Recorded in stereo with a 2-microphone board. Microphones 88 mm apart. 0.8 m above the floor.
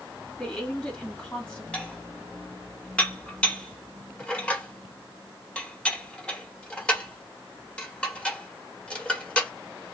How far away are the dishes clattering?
About 1.0 m.